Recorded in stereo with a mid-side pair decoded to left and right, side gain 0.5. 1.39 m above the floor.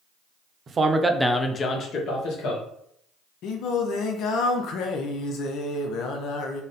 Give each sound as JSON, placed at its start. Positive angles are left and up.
{"t": 0.7, "sound": "a man speaking", "azimuth_deg": -40, "distance_m": 0.9}
{"t": 3.4, "sound": "singing", "azimuth_deg": 70, "distance_m": 0.6}